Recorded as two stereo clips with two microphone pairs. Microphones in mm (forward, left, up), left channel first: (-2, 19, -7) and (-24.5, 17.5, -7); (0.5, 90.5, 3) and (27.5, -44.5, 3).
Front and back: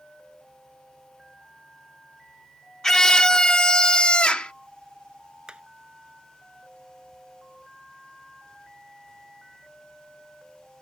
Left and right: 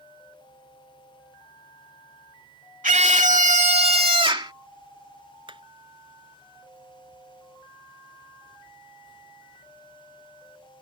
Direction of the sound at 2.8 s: 60° right.